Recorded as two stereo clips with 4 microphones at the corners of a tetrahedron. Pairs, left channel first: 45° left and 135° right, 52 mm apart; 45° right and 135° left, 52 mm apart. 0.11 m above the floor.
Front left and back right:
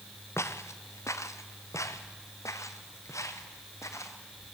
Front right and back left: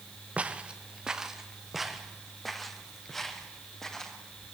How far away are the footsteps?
About 1.6 m.